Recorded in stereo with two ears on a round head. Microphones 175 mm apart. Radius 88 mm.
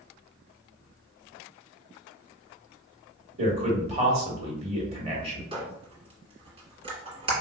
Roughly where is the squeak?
Right.